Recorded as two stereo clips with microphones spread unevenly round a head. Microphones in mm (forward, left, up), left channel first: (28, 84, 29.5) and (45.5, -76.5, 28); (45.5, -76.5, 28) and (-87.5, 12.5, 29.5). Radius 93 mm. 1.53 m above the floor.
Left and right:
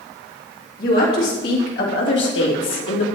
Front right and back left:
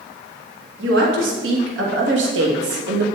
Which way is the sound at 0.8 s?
140° left.